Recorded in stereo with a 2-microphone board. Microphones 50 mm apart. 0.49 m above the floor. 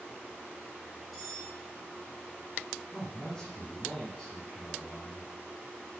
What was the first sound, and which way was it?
Cutlery clinking, centre (ahead or behind).